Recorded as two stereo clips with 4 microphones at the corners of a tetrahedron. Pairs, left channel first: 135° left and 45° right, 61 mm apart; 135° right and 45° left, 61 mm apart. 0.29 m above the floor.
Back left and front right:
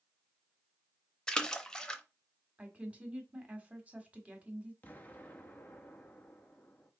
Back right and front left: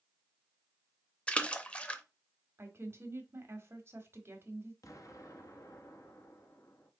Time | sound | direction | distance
1.3 | a splash | 170° right | 0.6 m
2.6 | a woman speaking | 15° left | 1.4 m
4.8 | an explosion | 165° right | 1.0 m